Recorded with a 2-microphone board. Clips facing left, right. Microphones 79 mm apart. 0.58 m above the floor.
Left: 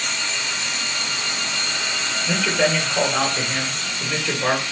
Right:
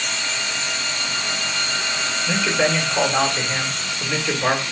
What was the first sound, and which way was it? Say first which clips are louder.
A man speaking: even; 10° left (ahead or behind).